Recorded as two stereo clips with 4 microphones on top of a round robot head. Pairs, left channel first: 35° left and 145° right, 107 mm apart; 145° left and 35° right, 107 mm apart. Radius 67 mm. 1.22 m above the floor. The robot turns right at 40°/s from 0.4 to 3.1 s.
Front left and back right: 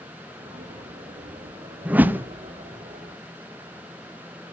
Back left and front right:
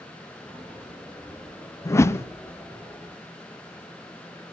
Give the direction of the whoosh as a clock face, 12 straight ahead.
7 o'clock.